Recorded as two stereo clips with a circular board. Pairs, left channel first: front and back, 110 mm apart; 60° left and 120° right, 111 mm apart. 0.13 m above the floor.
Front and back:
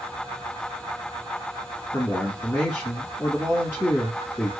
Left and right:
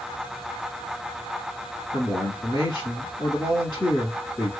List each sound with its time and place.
1.9 s a woman speaking: 50° left, 1.2 m